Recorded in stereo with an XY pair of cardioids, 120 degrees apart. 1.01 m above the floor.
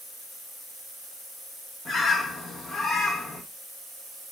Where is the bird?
45° left, 1.1 m.